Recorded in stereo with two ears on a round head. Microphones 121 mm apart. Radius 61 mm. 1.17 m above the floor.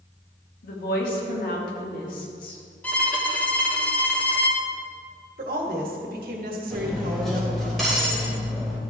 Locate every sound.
0.6 s a woman speaking: 80° left, 2 m
2.8 s a violin: 10° left (ahead or behind), 1.1 m
5.4 s a woman speaking: 80° right, 1.7 m
6.7 s cutlery clinking: centre (ahead or behind), 3 m